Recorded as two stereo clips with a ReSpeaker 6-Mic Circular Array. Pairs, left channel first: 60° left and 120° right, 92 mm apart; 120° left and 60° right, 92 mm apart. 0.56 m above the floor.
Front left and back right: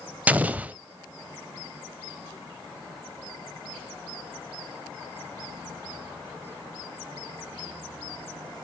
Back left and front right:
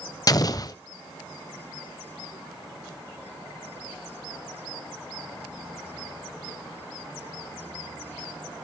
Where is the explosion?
165° left, 0.7 m.